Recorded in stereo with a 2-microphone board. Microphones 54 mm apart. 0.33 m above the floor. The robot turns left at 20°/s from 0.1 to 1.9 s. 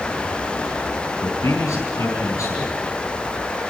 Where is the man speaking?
80° left, 5 m; by 2.9 s 75° left (ahead or behind), 5 m.